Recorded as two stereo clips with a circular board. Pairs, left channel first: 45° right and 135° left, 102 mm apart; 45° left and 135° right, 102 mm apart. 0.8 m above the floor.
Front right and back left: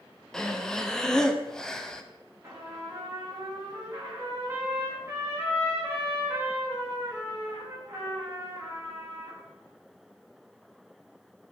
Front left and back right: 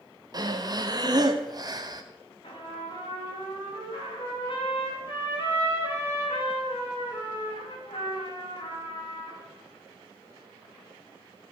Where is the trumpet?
75° left, 4.5 m.